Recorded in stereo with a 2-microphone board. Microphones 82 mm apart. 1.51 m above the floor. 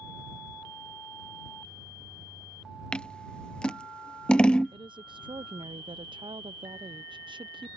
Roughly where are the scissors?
Centre.